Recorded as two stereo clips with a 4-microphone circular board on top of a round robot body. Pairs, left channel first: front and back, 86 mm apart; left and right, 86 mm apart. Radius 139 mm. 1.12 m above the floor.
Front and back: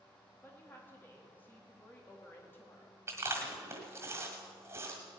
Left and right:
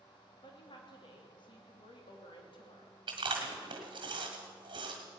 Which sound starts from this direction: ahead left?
A woman speaking, at 0.4 s.